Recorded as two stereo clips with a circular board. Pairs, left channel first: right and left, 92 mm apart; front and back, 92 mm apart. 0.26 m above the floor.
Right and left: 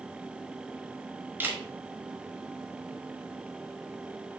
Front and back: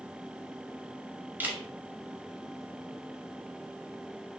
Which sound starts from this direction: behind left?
A camera shutter, at 1.4 s.